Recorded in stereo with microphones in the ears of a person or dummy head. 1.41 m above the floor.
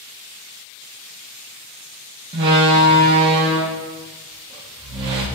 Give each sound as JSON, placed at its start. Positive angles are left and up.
{"t": 2.3, "sound": "a door slam", "side_deg": -30, "distance_m": 0.6}